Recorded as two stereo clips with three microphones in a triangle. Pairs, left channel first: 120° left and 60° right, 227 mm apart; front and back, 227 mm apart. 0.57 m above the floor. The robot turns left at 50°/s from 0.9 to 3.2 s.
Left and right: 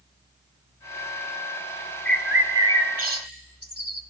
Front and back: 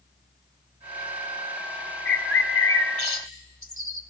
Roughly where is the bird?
Ahead left.